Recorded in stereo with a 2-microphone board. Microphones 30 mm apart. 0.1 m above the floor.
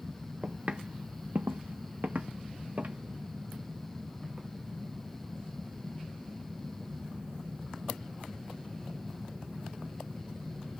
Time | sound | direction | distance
0.4 | footsteps | 30° right (ahead or behind) | 0.7 m